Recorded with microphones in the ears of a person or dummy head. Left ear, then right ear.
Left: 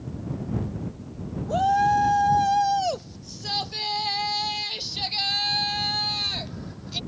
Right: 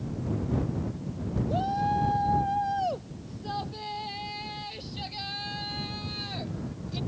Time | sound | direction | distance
1.5 | a shout | 40° left (ahead or behind) | ?